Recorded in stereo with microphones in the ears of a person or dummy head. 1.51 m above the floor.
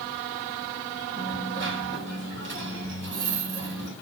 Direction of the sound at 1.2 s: 60° right (ahead or behind).